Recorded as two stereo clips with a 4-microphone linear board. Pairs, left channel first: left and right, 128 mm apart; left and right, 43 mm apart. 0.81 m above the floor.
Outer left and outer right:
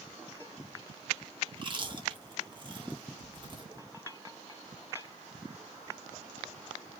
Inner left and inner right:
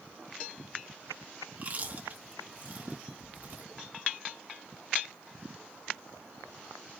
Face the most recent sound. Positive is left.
turn(degrees=-40)  # may be behind; listen again after turning